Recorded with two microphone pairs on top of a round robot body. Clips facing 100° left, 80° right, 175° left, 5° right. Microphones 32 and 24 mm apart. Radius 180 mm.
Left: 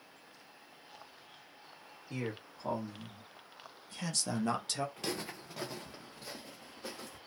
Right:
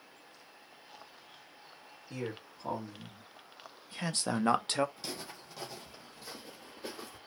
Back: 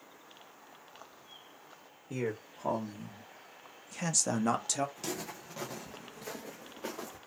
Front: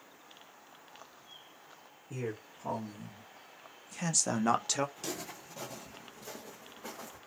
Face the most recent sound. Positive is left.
turn(degrees=-150)